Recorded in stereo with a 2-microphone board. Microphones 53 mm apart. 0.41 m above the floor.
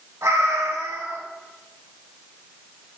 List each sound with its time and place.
0.2 s a cat meowing: 65° right (ahead or behind), 2 m